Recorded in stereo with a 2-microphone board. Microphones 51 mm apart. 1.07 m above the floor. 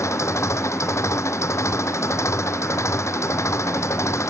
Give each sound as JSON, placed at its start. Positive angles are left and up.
{"t": 0.0, "sound": "an engine running", "side_deg": 80}